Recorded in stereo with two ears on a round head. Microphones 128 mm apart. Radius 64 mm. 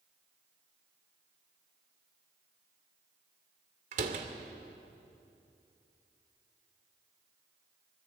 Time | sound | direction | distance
3.9 | a door slam | 55° right (ahead or behind) | 2.5 m